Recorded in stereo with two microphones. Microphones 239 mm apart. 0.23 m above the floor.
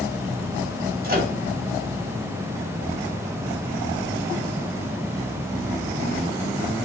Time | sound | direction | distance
1.0 | a microwave | 40° right (ahead or behind) | 1.1 m